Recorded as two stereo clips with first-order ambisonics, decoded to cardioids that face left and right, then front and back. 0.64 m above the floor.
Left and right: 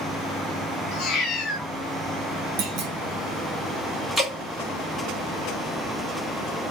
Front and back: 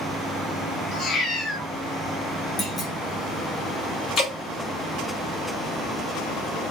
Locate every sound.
0.9 s a cat meowing: 55° left, 0.9 m
2.6 s a clunk: 75° right, 0.8 m
4.2 s dripping: straight ahead, 1.3 m